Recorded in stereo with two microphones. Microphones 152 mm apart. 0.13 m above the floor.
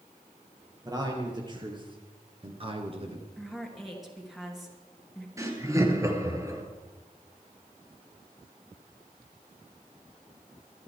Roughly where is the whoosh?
I don't hear a whoosh.